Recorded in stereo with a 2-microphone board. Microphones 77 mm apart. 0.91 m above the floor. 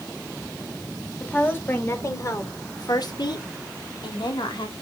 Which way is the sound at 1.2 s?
20° left (ahead or behind).